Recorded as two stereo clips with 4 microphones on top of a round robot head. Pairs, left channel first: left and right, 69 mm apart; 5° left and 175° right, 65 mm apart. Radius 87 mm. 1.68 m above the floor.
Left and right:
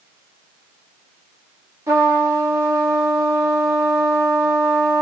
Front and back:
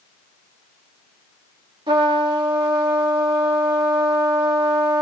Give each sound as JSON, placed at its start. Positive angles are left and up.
{"t": 1.9, "sound": "a trumpet", "azimuth_deg": -150, "distance_m": 1.2}